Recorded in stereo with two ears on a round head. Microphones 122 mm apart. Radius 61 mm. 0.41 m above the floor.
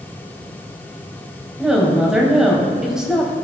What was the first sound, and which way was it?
A woman speaking, 5° right (ahead or behind).